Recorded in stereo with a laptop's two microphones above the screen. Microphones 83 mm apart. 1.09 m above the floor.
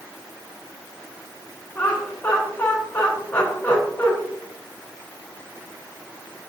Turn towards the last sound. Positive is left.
turn(degrees=25)  # may be behind; listen again after turning